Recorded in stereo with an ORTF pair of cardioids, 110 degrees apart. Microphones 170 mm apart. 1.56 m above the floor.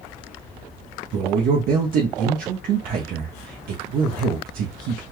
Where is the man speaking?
65° right, 1.0 m.